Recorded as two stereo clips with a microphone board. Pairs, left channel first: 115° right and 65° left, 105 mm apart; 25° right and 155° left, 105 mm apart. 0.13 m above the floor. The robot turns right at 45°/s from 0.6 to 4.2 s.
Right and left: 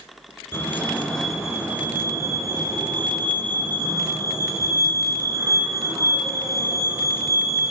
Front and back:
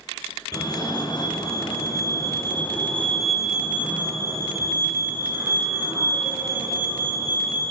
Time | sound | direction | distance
0.5 | a fire alarm | 55° right | 2.5 m